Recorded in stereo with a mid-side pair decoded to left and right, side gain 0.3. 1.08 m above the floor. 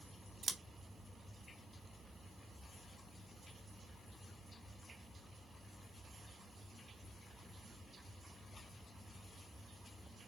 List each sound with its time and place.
0.4 s scissors: 65° right, 0.7 m